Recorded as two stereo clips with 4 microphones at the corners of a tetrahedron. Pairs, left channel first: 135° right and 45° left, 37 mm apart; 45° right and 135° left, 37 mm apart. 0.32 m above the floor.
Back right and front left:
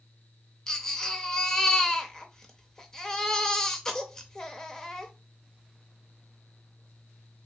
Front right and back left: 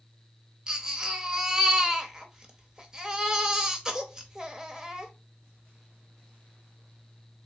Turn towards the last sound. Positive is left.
turn(degrees=175)